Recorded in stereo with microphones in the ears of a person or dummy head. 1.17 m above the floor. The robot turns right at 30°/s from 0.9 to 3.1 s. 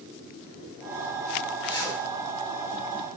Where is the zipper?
30° left (ahead or behind), 5.5 m; by 2.0 s 20° left (ahead or behind), 5.5 m.